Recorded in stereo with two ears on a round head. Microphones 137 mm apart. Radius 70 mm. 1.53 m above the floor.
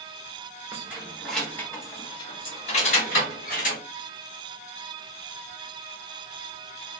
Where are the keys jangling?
15° right (ahead or behind), 1.0 m; by 3.8 s 60° left (ahead or behind), 1.6 m.